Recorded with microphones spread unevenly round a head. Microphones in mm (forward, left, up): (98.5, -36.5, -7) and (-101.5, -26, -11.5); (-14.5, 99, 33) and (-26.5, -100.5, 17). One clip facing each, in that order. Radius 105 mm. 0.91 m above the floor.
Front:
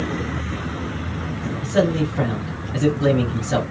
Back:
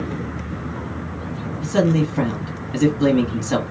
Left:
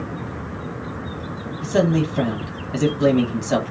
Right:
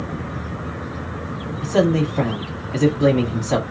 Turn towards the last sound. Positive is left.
turn(degrees=145)